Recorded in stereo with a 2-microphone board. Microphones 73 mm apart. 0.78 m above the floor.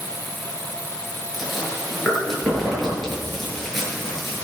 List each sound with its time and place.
1.3 s chewing: 5° left (ahead or behind), 7.5 m